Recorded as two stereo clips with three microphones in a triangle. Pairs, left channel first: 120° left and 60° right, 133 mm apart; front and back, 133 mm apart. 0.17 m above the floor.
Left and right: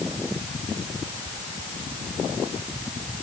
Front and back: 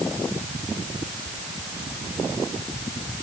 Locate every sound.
Only background noise.